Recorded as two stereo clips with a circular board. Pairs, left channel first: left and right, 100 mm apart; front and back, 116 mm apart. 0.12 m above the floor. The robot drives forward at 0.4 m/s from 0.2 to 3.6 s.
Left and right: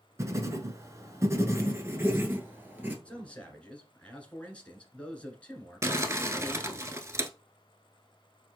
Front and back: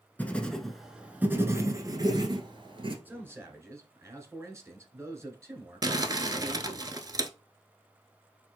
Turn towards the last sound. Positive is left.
turn(degrees=-140)